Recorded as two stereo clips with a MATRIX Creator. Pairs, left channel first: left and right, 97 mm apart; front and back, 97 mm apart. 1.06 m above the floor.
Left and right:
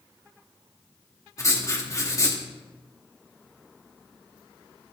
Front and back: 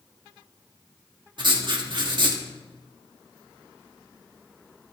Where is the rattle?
No rattle in this recording.